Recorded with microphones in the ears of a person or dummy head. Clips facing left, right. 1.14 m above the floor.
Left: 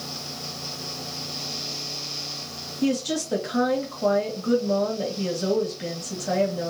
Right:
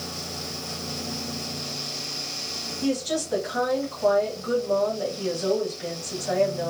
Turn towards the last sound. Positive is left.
turn(degrees=45)  # may be behind; listen again after turning